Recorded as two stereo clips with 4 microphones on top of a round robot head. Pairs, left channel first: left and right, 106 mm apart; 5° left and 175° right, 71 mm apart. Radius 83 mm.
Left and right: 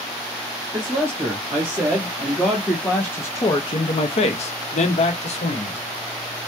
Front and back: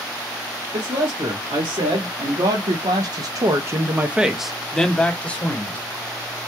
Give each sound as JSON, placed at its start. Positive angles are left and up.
{"t": 0.7, "sound": "a man speaking", "azimuth_deg": -155, "distance_m": 1.7}